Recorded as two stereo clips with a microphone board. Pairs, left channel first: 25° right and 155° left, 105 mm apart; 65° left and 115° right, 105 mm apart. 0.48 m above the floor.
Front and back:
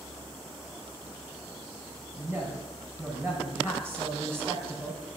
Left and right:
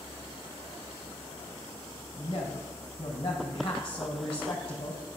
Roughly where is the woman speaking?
Left.